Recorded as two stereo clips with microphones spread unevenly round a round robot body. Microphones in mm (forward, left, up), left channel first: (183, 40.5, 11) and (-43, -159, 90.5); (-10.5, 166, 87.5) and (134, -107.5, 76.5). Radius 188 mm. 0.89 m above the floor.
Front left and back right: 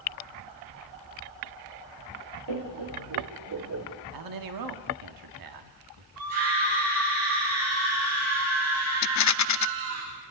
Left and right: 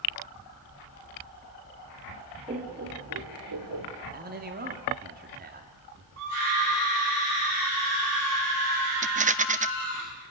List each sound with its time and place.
2.5 s laughter: 135° right, 2 m; by 3.9 s 100° right, 3.5 m
4.1 s a man speaking: 125° right, 2.5 m
6.2 s a scream: 115° right, 10 m
9.0 s a rattle: 5° left, 0.5 m